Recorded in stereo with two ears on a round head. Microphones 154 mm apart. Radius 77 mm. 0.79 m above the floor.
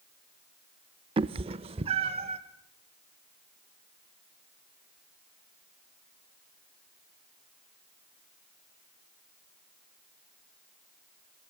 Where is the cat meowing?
30° right (ahead or behind), 0.5 m; by 2.4 s 35° right (ahead or behind), 1.2 m.